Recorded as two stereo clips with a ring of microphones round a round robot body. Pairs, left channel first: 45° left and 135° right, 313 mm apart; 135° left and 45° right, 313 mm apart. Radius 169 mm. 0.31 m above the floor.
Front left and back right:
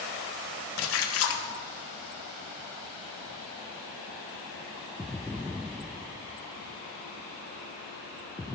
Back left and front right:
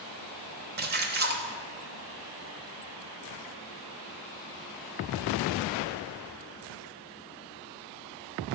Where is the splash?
10° left, 0.8 m.